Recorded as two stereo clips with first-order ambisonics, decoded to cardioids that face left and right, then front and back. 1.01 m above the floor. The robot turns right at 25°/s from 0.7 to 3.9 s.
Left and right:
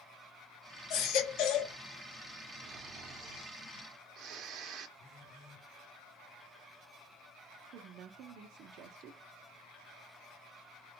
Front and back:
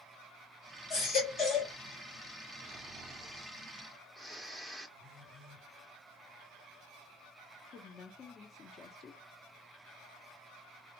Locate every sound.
0.9 s a baby crying: 55° left, 2 m; by 1.7 s 75° left, 2 m
2.6 s snoring: 115° right, 0.7 m; by 4.9 s 80° right, 0.7 m
5.0 s a phone buzzing: 150° left, 2 m
7.7 s a woman speaking: 55° right, 0.5 m